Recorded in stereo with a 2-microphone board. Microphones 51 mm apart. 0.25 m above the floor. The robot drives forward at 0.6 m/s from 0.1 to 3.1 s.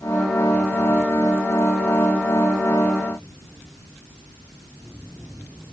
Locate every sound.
Only background noise.